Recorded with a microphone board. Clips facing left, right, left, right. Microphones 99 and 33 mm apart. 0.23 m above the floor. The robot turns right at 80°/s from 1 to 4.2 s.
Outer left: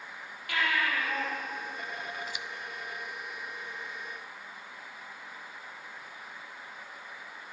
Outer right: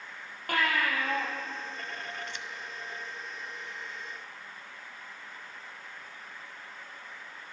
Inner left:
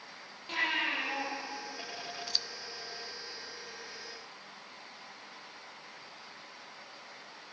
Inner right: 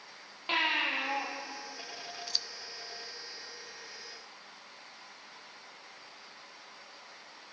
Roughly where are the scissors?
Centre.